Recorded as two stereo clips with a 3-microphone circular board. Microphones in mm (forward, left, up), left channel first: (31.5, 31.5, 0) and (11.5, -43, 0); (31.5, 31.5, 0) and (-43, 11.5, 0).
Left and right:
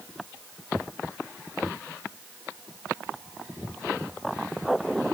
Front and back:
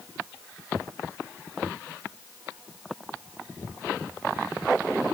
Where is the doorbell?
I don't hear a doorbell.